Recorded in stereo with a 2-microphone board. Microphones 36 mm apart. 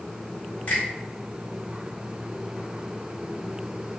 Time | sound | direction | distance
0.7 | a finger snap | 45° left (ahead or behind) | 1.7 m